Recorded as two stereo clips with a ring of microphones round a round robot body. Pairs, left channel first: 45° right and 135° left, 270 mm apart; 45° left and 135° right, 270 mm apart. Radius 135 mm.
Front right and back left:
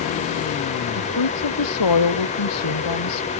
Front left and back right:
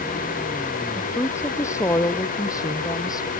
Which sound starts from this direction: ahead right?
A woman speaking, at 1.0 s.